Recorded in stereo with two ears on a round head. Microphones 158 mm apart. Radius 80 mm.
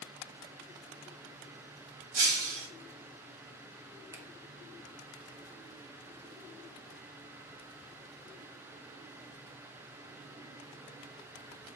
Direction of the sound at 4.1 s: 15° right (ahead or behind).